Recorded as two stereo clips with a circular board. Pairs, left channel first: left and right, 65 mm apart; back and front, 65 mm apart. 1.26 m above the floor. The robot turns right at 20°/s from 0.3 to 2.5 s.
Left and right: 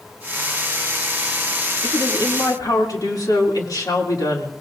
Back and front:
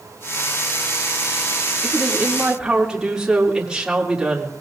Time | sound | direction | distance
1.8 | a woman speaking | 65° left | 2.5 m